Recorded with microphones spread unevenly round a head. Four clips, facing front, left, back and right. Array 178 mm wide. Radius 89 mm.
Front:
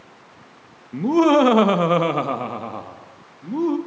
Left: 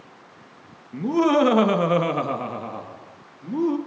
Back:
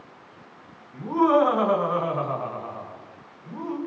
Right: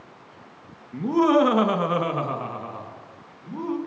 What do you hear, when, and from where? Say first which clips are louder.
0.9 s laughter: even, front 4 dB; 5° right, 2.5 m; by 3.8 s 30° left, 4 m